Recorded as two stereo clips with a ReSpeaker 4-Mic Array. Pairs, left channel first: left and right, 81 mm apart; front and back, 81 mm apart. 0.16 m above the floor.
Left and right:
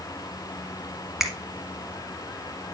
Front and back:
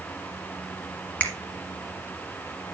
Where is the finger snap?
10° right, 1.2 m.